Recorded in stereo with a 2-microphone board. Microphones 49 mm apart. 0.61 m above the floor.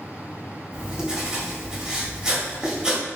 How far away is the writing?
About 1.6 m.